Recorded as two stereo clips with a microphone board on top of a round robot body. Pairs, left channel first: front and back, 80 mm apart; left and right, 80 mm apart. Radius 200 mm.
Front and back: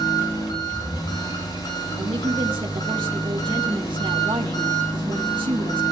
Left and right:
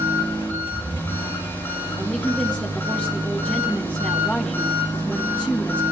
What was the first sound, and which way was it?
An engine running, 30° left.